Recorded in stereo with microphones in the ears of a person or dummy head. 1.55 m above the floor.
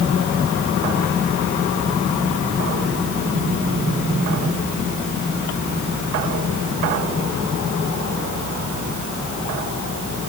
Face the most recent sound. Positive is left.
No sound to turn to.